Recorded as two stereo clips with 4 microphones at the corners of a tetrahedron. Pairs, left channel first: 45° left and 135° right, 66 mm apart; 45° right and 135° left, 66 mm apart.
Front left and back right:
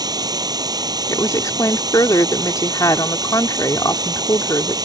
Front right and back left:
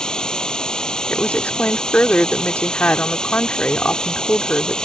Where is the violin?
I don't hear a violin.